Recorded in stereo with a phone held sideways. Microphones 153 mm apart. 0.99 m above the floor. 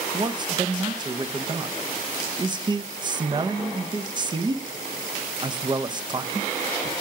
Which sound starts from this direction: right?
A man speaking, at 0.1 s.